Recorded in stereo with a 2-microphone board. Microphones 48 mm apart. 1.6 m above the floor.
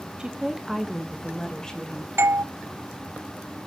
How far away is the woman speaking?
About 0.8 m.